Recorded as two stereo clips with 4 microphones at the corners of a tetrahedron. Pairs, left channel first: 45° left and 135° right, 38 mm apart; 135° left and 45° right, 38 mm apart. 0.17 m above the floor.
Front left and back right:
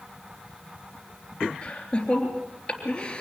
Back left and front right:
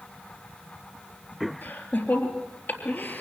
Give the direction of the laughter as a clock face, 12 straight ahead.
9 o'clock.